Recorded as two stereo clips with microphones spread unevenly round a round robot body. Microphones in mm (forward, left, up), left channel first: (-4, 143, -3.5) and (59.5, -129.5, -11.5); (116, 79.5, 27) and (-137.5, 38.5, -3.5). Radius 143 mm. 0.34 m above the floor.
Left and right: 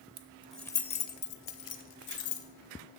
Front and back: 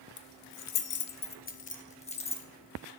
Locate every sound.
0.2 s keys jangling: 20° right, 0.7 m; by 2.5 s 80° left, 1.3 m